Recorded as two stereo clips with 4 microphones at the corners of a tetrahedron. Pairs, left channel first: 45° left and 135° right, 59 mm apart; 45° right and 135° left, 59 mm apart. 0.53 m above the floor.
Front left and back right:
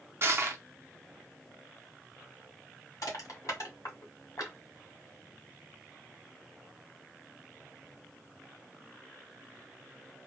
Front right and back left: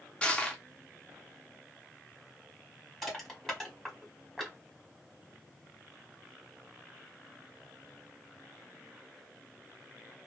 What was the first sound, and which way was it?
Crushing, 115° right.